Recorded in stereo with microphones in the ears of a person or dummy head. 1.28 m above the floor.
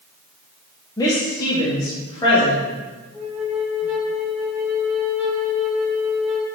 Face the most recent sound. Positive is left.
turn(degrees=-10)  # may be behind; listen again after turning